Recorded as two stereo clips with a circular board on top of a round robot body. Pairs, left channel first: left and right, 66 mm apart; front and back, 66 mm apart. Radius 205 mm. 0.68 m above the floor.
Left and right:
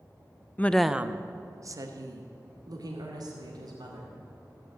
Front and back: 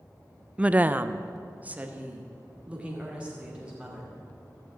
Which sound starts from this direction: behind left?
A woman speaking, at 0.6 s.